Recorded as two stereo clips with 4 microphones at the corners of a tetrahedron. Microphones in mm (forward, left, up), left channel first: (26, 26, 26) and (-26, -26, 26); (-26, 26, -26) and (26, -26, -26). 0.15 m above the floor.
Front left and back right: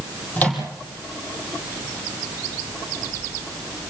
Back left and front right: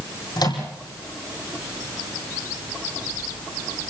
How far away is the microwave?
About 4.5 m.